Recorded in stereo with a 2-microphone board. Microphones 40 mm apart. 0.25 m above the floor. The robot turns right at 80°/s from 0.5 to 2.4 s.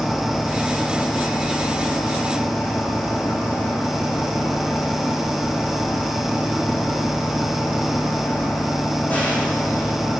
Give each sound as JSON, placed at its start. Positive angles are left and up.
{"t": 0.0, "sound": "an engine running", "azimuth_deg": -10, "distance_m": 8.5}